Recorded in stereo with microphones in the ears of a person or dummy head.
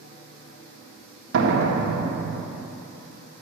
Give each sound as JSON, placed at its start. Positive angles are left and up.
{"t": 1.3, "sound": "a door slam", "side_deg": -65, "distance_m": 1.4}